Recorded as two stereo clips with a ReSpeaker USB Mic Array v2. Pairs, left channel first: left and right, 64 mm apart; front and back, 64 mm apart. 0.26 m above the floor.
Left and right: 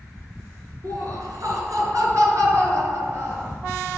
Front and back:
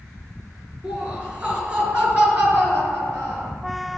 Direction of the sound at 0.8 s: 110° right.